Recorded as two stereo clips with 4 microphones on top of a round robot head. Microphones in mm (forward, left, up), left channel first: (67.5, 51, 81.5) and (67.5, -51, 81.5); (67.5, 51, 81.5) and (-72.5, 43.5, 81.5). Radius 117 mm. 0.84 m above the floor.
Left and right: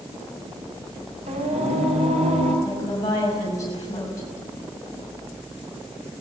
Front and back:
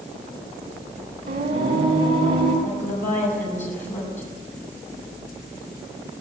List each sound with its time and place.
1.3 s singing: 120° right, 4.5 m
2.6 s a woman speaking: 35° left, 6 m